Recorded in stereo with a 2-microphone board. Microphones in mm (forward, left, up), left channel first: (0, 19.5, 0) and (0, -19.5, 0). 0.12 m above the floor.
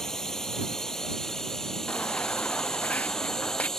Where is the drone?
10° left (ahead or behind).